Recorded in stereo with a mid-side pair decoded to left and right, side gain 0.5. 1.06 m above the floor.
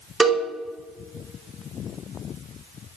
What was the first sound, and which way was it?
A cowbell, 30° right.